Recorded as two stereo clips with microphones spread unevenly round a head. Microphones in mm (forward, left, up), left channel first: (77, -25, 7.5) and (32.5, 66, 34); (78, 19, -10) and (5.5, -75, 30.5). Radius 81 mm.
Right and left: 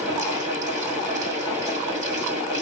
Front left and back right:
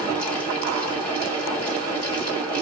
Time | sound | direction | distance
0.0 | a fan | 135° left | 2 m